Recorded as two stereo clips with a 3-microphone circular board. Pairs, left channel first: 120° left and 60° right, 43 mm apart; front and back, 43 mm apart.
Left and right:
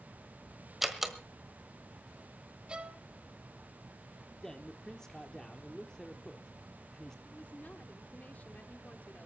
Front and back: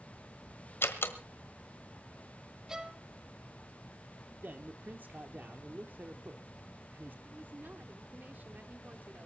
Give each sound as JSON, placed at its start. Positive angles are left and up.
{"t": 0.8, "sound": "a door slam", "azimuth_deg": 25, "distance_m": 1.5}
{"t": 2.7, "sound": "a violin", "azimuth_deg": -115, "distance_m": 1.3}
{"t": 4.4, "sound": "a man speaking", "azimuth_deg": -170, "distance_m": 1.1}
{"t": 7.2, "sound": "a woman speaking", "azimuth_deg": 160, "distance_m": 1.6}